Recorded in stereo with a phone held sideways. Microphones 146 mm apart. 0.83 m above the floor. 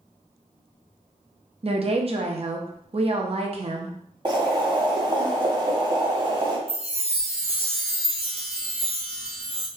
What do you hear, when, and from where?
1.6 s a woman speaking: 45° right (ahead or behind), 0.6 m
4.2 s boiling: 35° right (ahead or behind), 0.8 m
6.7 s a chime: 45° right (ahead or behind), 0.6 m